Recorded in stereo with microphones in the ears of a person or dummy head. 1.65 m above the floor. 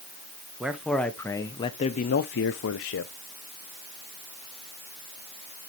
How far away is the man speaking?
About 1.0 m.